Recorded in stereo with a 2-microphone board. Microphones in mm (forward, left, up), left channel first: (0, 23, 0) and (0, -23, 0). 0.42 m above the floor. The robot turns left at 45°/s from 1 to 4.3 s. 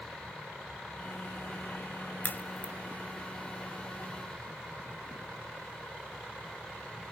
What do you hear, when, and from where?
2.2 s a crack: 45° left (ahead or behind), 0.7 m; by 2.7 s 20° left (ahead or behind), 0.7 m